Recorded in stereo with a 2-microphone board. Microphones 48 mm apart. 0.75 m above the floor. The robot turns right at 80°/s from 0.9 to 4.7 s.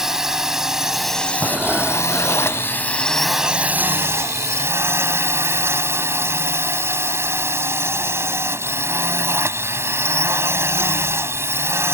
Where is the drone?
10° right; by 11.9 s 65° right.